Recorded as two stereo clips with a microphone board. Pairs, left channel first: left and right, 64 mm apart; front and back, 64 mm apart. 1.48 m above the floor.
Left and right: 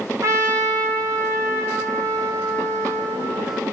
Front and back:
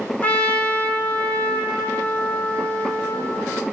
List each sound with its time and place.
0.2 s a trumpet: 65° right, 3 m